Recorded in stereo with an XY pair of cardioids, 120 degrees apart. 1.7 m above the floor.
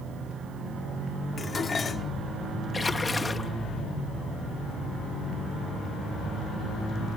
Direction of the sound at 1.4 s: 30° left.